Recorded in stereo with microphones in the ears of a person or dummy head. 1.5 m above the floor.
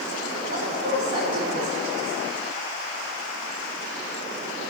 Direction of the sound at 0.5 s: 50° right (ahead or behind).